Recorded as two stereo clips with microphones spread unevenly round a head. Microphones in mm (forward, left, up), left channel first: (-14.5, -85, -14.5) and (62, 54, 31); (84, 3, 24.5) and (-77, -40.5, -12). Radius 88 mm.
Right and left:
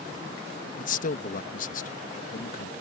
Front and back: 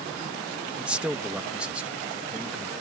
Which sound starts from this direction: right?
A man speaking, at 0.8 s.